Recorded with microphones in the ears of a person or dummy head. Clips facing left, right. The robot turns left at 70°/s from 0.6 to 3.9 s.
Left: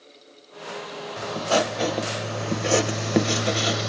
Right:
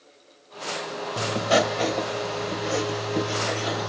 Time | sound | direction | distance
1.2 | writing | 140° right | 0.8 m